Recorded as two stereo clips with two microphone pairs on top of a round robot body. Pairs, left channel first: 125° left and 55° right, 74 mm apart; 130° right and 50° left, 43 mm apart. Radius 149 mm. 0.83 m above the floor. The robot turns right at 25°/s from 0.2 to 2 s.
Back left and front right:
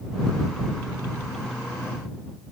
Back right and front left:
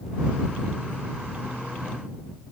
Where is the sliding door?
No sliding door in this recording.